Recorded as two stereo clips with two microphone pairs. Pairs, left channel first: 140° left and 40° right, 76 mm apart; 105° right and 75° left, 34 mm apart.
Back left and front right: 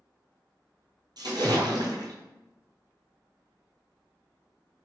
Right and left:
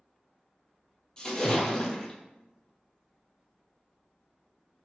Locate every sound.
1.2 s a splash: 35° right, 1.1 m